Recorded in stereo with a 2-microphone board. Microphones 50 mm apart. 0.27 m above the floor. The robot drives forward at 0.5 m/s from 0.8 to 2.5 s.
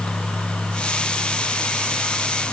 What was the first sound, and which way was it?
Only background noise.